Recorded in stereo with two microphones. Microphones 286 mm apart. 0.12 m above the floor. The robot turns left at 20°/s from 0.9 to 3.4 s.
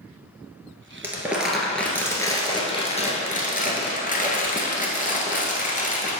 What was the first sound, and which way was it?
Crumpling, 170° right.